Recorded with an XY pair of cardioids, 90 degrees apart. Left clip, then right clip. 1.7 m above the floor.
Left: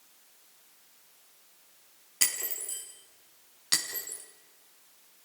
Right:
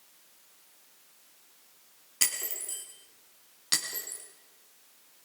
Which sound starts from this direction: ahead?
Breaking glass, at 2.2 s.